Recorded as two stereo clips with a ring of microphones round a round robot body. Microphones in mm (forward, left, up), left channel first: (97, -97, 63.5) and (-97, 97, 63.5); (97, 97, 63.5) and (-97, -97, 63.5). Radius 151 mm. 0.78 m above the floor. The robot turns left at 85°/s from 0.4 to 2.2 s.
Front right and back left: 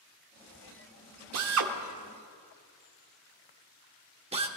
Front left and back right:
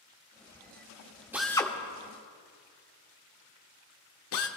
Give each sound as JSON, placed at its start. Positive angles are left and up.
{"t": 1.3, "sound": "a drill", "azimuth_deg": 145, "distance_m": 1.3}